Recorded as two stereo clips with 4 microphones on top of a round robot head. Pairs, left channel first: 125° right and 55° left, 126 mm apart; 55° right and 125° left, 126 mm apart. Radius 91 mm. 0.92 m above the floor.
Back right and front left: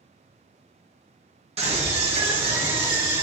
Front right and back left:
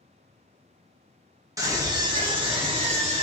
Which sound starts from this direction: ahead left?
A scream, at 1.6 s.